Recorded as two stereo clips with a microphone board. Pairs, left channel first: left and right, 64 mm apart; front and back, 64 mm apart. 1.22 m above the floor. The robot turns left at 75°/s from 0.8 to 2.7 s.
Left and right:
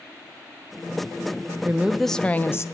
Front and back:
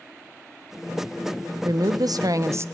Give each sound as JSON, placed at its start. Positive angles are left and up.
{"t": 1.6, "sound": "a woman speaking", "azimuth_deg": -150, "distance_m": 0.5}